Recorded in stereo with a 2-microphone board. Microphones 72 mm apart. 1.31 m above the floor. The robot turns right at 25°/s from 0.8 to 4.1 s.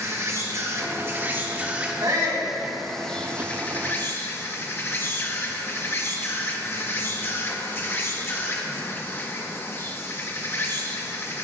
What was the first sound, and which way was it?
An insect, 45° right.